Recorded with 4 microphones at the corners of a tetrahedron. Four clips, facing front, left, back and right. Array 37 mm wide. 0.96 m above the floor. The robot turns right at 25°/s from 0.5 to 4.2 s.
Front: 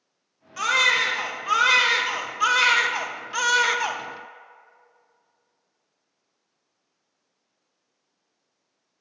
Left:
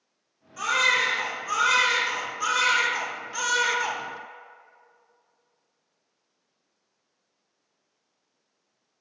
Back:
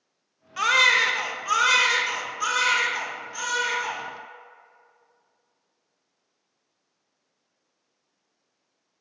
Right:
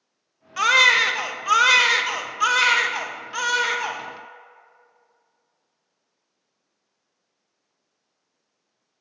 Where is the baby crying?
100° right, 0.6 m; by 4.0 s 15° right, 0.6 m.